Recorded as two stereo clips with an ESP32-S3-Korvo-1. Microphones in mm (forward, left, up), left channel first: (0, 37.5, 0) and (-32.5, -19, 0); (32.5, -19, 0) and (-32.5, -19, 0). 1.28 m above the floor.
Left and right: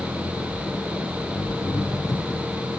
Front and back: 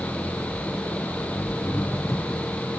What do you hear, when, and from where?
0.0 s an engine running: 55° left